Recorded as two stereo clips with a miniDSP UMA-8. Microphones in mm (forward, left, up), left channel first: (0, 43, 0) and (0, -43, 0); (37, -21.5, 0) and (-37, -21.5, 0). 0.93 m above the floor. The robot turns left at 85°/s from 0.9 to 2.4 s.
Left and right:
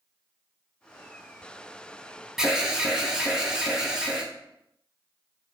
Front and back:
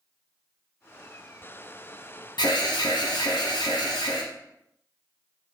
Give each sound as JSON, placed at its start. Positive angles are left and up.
{"t": 2.4, "sound": "an alarm", "azimuth_deg": -5, "distance_m": 0.5}